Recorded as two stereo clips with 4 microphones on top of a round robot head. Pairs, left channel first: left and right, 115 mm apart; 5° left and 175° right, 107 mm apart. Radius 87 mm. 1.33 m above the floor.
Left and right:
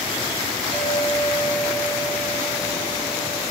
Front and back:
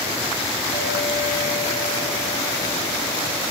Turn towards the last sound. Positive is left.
turn(degrees=35)